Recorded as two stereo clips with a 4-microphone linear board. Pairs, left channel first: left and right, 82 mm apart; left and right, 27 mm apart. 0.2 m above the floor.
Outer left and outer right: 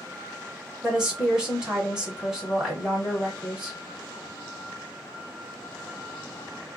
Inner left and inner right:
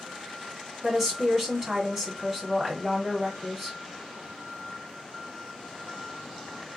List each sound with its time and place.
0.8 s a woman speaking: 10° right (ahead or behind), 1.6 m